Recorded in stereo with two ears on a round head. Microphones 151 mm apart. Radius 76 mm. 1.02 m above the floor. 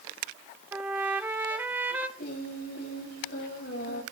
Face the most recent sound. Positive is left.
turn(degrees=70)  # may be behind; listen again after turning